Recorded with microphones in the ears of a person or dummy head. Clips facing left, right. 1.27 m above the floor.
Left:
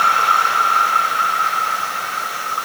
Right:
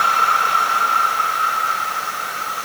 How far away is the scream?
I don't hear a scream.